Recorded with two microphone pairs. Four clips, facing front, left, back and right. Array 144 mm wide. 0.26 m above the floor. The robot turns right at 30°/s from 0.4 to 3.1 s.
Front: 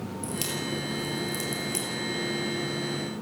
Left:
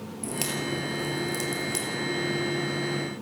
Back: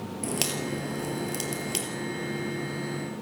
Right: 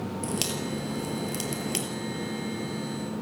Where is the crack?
Straight behind, 4 m; by 1.9 s 135° right, 4 m.